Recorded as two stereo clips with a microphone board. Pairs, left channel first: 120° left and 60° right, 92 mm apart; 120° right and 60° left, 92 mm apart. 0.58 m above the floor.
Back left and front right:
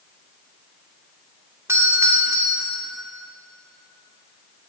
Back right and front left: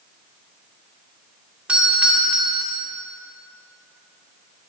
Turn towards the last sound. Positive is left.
turn(degrees=-15)